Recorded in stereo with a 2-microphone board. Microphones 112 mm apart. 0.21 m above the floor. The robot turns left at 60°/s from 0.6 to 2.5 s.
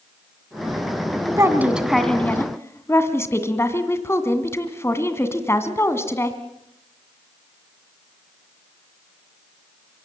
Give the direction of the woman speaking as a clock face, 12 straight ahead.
5 o'clock.